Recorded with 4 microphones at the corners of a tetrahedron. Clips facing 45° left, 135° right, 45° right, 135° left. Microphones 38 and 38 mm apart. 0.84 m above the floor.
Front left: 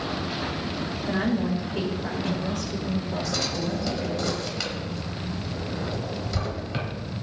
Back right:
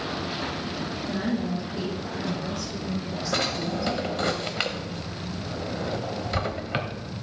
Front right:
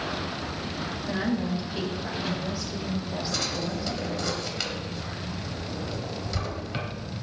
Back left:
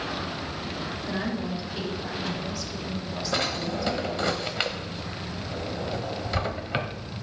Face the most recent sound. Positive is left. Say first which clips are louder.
# back right 5 dB, back left 5 dB
turn(degrees=180)